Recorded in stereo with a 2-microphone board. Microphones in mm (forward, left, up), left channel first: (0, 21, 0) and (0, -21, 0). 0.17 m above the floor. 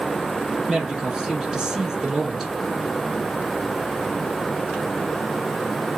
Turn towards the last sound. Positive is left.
turn(degrees=-10)  # may be behind; listen again after turning